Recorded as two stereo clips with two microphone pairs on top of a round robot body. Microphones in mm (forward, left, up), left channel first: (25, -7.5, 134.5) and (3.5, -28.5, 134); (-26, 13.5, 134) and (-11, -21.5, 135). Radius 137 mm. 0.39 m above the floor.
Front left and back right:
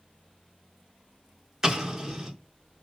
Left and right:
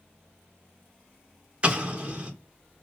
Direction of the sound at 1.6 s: 80° right.